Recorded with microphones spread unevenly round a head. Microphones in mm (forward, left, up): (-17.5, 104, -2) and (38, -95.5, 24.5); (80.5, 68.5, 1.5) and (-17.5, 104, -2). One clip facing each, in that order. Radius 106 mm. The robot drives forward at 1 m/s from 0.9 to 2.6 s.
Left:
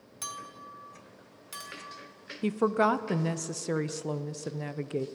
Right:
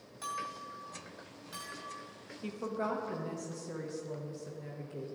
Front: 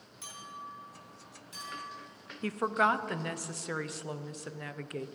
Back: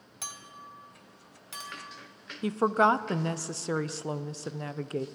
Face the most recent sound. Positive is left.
turn(degrees=100)